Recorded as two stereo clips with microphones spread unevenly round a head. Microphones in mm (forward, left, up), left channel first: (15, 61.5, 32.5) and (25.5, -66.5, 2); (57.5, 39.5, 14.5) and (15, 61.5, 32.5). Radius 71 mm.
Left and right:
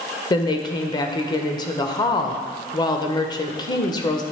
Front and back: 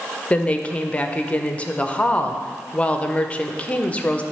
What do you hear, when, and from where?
0.3 s a woman speaking: 30° left, 0.7 m